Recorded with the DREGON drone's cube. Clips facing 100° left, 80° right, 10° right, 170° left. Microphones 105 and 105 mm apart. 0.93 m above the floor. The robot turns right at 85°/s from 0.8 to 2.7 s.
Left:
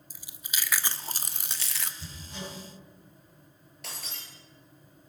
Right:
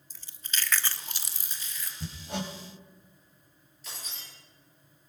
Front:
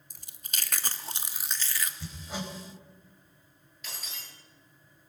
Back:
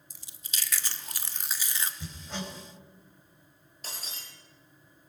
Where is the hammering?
120° right, 4.5 m; by 2.5 s 75° right, 4.5 m.